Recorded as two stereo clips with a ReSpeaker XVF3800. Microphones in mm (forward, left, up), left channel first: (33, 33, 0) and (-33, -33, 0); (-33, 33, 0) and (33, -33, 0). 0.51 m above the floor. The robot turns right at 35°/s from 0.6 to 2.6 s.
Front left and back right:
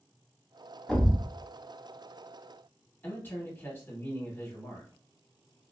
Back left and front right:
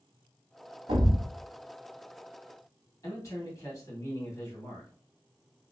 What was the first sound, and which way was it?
A thud, 40° right.